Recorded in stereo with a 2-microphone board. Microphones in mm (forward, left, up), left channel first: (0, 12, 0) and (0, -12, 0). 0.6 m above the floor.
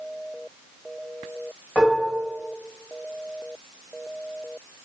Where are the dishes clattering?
60° left (ahead or behind), 1.5 m.